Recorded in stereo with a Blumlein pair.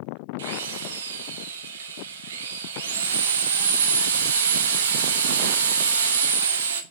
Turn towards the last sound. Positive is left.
turn(degrees=-60)